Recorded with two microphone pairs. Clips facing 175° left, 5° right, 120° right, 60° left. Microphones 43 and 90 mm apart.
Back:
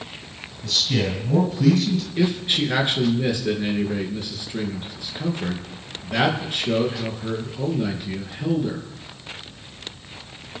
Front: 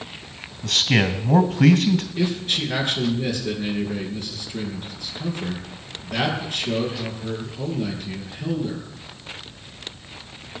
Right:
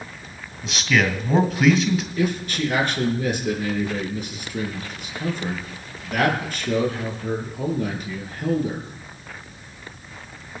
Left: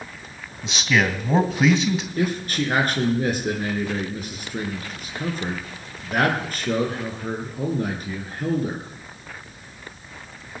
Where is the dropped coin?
No dropped coin in this recording.